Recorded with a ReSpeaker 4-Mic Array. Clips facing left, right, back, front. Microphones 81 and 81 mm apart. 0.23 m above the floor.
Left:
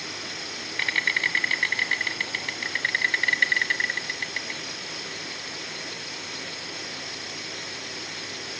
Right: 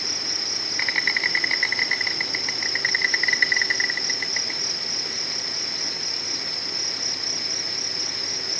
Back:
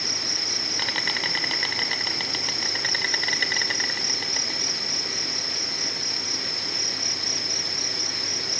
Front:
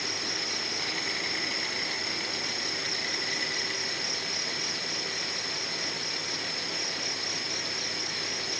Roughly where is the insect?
Behind.